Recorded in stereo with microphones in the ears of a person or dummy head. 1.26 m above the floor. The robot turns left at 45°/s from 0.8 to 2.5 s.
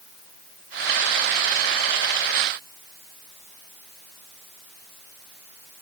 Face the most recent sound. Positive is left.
No sound to turn to.